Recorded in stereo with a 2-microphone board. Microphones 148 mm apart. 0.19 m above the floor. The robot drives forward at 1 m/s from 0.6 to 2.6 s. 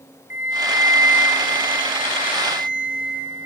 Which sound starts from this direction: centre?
A flute, at 0.3 s.